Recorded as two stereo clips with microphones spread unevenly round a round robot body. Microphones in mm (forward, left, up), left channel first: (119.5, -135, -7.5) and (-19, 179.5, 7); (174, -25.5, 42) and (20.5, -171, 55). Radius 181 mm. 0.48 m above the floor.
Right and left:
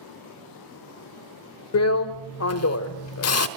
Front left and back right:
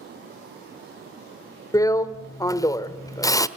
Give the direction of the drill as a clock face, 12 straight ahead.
1 o'clock.